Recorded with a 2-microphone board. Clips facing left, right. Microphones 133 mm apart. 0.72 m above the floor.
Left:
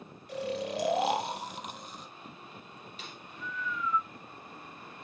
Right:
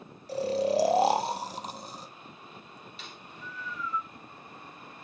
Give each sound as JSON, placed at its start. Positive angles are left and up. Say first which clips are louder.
{"t": 0.3, "sound": "snoring", "louder": "right 7 dB", "side_deg": -35, "distance_m": 0.6}
{"t": 3.0, "sound": "a snare drum", "louder": "left 2 dB", "side_deg": 45, "distance_m": 2.0}